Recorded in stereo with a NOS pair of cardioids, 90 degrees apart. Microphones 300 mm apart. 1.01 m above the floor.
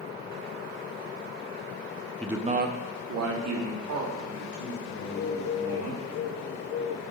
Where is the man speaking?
5° left, 0.7 m; by 6.0 s 70° right, 5 m.